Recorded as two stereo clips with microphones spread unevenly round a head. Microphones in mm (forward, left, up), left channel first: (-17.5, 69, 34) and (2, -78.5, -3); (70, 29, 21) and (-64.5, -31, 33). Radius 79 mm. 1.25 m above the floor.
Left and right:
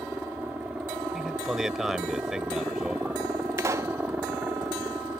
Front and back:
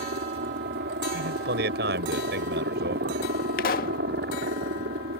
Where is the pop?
5° right.